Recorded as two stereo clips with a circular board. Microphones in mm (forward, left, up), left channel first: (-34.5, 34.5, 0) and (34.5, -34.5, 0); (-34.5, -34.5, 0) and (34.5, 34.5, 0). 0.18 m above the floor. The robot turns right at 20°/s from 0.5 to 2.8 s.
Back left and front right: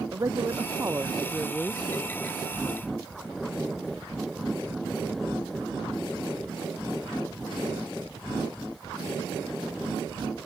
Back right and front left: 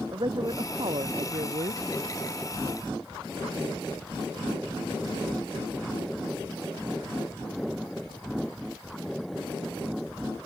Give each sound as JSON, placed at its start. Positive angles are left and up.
{"t": 0.1, "sound": "a man speaking", "azimuth_deg": 10}